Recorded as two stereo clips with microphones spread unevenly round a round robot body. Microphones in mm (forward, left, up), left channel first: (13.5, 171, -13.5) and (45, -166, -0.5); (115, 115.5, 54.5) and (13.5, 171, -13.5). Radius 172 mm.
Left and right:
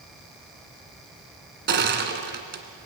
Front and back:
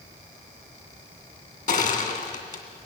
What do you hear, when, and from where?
1.7 s crushing: 30° right, 2.5 m